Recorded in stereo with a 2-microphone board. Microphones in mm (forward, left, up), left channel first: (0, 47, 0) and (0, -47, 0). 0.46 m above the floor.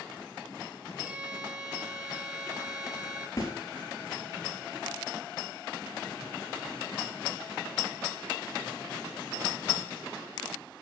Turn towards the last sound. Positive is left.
turn(degrees=40)  # may be behind; listen again after turning